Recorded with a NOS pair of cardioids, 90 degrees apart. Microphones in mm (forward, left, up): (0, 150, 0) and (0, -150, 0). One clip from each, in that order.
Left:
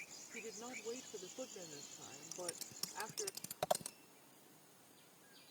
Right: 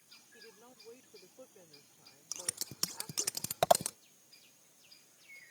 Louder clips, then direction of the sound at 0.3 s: Left 9 dB; 50° left.